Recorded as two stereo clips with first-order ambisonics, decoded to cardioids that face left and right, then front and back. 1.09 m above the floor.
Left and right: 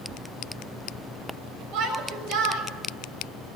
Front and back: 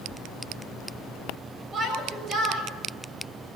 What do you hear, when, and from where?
1.7 s a shout: 120° right, 6 m